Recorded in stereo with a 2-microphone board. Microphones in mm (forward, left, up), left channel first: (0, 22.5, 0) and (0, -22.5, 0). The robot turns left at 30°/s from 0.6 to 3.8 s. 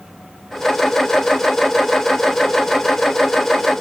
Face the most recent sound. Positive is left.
No sound to turn to.